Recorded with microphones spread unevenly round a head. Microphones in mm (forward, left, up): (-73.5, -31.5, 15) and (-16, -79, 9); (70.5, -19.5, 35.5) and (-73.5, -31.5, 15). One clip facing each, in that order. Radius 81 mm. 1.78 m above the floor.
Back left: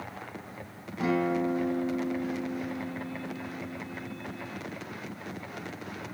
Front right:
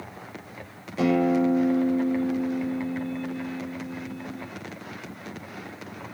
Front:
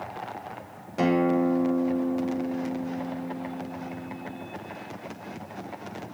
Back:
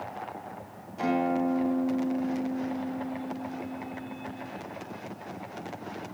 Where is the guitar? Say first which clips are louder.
Front right 6 dB, front 4 dB; 10° right, 7.5 m.